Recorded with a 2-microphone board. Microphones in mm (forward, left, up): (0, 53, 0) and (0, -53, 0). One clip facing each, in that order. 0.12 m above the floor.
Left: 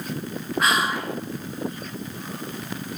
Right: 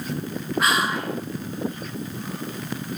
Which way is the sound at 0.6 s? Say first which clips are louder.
Even; centre (ahead or behind).